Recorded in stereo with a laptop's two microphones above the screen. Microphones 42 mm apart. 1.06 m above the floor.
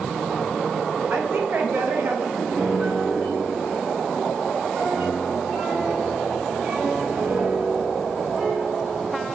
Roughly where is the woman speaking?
Right.